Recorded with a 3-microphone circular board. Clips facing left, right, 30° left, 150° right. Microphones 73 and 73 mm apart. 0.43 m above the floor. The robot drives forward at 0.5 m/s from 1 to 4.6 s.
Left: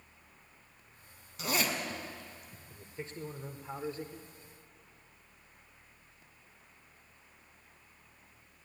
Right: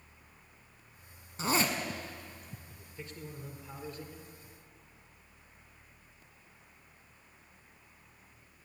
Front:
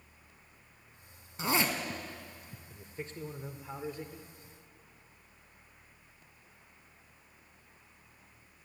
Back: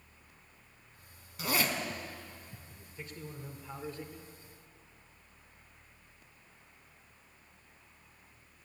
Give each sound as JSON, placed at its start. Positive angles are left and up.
{"t": 1.4, "sound": "a zipper", "azimuth_deg": -35, "distance_m": 2.0}
{"t": 2.7, "sound": "a man speaking", "azimuth_deg": 45, "distance_m": 1.4}